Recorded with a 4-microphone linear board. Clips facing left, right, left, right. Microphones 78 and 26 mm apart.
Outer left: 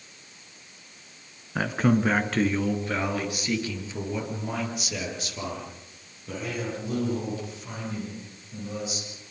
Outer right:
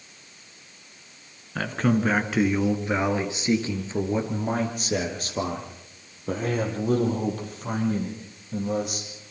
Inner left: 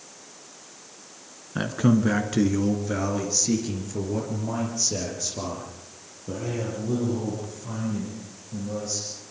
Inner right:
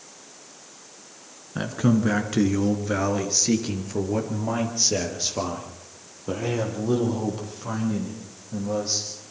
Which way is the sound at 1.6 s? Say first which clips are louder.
Outer left 1 dB, inner left 1 dB; 10° left (ahead or behind).